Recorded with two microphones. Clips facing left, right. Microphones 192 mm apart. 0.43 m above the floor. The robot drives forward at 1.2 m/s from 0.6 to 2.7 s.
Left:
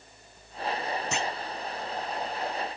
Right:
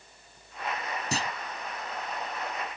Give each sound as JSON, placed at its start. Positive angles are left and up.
{"t": 1.1, "sound": "a clunk", "side_deg": -35}